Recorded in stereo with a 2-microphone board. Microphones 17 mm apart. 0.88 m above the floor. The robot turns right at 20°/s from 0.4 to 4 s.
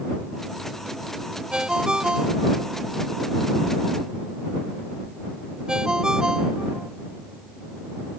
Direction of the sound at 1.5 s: 60° right (ahead or behind).